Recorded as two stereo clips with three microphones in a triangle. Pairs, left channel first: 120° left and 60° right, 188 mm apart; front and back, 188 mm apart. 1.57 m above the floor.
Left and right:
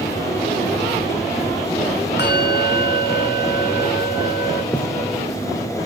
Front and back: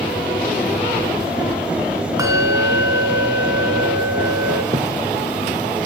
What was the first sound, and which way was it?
A bell, 110° left.